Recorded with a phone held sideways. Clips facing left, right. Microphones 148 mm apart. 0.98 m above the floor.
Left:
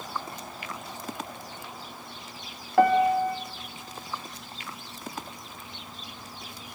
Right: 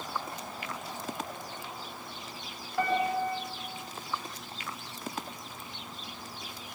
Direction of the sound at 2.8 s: 70° left (ahead or behind).